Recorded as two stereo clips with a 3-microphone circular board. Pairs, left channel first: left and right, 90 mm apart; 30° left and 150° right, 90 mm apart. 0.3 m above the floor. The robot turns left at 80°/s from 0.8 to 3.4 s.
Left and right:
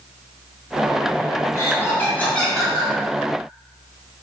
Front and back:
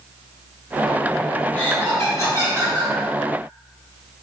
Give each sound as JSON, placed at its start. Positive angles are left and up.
{"t": 1.5, "sound": "laughter", "azimuth_deg": 85, "distance_m": 1.1}